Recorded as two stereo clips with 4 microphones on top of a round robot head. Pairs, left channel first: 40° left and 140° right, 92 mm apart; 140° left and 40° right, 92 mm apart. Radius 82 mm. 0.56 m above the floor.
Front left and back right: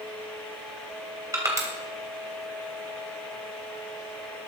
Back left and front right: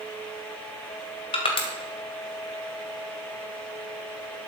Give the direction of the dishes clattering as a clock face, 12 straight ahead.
I don't hear dishes clattering.